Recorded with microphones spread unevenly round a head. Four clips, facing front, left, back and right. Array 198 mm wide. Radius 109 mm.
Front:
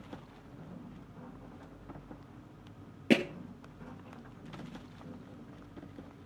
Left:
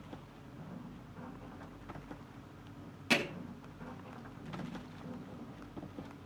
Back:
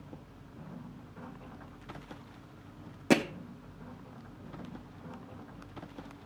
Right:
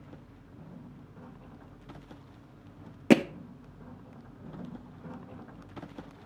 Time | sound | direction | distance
3.1 | hammering | 90° right | 0.7 m